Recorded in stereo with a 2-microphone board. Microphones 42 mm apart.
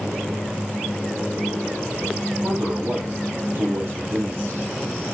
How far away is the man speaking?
About 7 m.